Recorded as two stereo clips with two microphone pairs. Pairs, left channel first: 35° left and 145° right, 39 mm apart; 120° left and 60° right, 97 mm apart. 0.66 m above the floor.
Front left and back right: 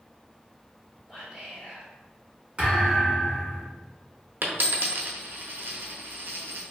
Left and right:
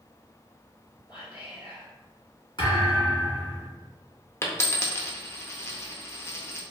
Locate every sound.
1.1 s whispering: 140° left, 1.5 m
2.6 s a thud: 155° left, 1.6 m
4.4 s a dropped coin: 175° right, 0.5 m